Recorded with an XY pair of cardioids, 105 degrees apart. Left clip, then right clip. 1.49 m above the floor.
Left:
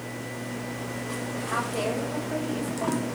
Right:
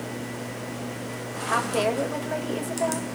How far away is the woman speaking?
About 6 m.